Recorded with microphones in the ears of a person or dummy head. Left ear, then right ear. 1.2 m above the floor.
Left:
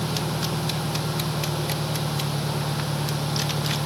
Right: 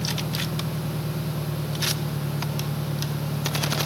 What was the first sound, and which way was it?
An engine running, 35° left (ahead or behind).